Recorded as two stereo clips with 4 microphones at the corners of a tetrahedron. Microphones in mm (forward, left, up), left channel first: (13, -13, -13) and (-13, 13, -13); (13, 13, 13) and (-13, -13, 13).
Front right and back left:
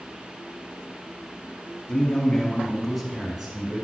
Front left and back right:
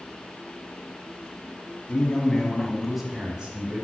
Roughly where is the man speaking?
Ahead.